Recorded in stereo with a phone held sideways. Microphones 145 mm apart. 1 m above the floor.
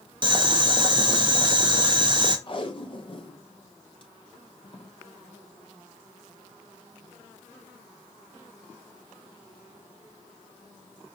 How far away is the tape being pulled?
About 0.8 m.